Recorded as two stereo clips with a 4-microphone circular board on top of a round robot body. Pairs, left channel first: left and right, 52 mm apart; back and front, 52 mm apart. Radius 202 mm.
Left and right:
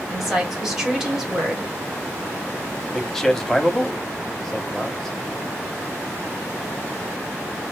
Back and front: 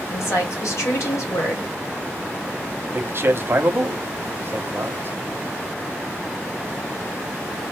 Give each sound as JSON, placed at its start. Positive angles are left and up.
{"t": 0.1, "sound": "a woman speaking", "azimuth_deg": -175, "distance_m": 2.5}
{"t": 2.9, "sound": "a man speaking", "azimuth_deg": 5, "distance_m": 1.2}